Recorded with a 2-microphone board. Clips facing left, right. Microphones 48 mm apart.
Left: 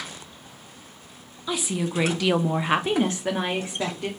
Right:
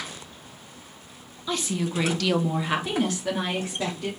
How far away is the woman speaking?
About 0.8 m.